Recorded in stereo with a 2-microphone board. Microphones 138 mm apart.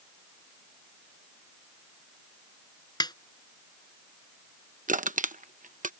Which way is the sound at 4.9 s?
65° right (ahead or behind).